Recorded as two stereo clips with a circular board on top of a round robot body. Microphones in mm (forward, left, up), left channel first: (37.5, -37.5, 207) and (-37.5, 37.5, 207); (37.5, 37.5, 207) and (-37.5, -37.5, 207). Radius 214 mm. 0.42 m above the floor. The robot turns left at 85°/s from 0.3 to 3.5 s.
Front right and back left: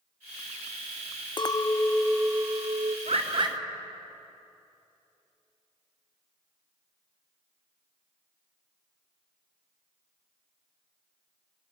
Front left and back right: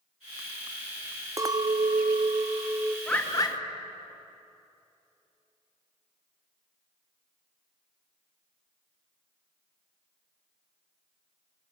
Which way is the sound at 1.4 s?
80° right.